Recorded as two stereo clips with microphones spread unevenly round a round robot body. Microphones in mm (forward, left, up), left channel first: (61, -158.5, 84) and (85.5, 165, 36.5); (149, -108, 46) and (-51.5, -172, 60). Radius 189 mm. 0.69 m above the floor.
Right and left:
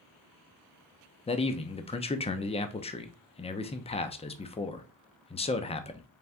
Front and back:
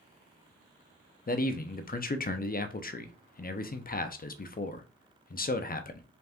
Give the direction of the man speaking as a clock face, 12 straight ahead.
1 o'clock.